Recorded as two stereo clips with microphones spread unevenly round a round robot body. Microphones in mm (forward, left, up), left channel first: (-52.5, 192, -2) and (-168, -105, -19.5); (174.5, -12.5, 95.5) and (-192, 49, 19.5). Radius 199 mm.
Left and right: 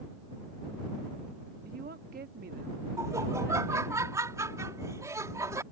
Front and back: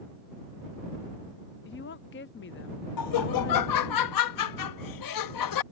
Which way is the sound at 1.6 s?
70° right.